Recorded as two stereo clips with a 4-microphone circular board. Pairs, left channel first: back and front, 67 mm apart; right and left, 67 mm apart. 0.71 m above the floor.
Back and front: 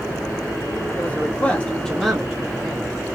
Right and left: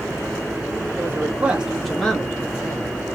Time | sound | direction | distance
1.0 | a man speaking | 130° left | 1.6 m